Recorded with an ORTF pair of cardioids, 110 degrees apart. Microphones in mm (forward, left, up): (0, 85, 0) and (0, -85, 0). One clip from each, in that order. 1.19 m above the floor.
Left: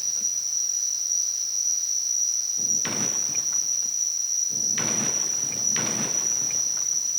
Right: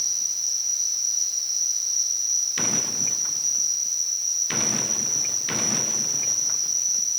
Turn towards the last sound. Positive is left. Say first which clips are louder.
# right 1 dB
turn(degrees=-20)